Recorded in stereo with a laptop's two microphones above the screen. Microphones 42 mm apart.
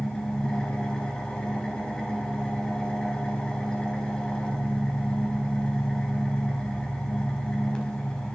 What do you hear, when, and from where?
0.0 s an engine running: 25° left (ahead or behind), 5 m